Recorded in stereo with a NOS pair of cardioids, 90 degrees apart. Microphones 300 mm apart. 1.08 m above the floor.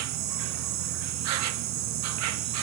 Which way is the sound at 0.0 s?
65° right.